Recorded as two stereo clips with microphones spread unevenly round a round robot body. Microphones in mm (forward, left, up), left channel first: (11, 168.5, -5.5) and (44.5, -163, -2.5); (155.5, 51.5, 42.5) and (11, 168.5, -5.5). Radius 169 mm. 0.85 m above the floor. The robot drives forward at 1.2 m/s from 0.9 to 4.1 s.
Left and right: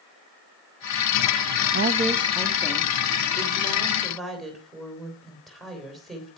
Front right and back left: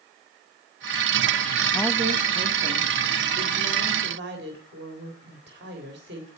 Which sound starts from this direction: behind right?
A woman speaking, at 1.7 s.